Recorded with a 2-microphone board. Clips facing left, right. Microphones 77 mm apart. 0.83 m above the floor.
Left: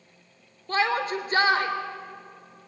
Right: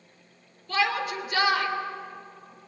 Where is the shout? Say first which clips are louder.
Left 2 dB; 35° left (ahead or behind), 3 m.